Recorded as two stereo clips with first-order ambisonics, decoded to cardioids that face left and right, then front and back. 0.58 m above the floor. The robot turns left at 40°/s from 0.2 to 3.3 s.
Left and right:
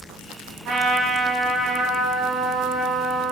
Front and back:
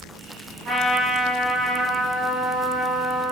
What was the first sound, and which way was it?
A trumpet, 125° right.